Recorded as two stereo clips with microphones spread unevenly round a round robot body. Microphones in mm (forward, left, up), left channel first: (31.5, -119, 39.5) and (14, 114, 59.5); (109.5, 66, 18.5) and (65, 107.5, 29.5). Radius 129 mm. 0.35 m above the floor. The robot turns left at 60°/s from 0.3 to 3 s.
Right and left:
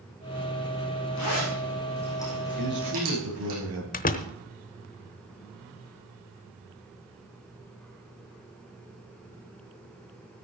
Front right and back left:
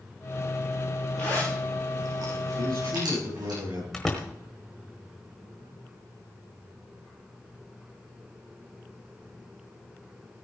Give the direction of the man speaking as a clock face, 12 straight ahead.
7 o'clock.